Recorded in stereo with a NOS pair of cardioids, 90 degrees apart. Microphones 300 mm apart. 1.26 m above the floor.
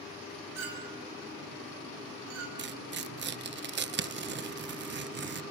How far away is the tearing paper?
About 1.0 m.